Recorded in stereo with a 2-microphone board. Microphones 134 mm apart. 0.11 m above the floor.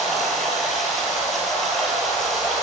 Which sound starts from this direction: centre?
Running water, at 0.0 s.